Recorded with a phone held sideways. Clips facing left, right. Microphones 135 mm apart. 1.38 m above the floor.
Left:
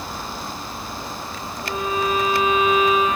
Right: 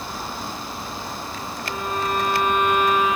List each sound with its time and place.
1.6 s a violin: 90° left, 6 m